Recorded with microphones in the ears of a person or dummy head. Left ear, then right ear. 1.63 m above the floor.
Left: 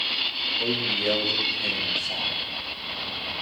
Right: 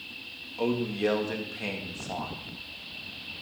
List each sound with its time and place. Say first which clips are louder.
0.6 s a man speaking: even; 70° right (ahead or behind), 3.5 m